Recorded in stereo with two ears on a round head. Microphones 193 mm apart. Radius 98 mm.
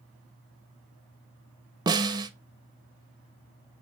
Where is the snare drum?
20° right (ahead or behind), 0.5 m.